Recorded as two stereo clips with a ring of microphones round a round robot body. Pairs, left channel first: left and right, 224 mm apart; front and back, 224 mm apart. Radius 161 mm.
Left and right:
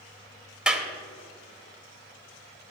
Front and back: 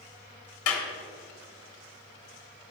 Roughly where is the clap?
Ahead.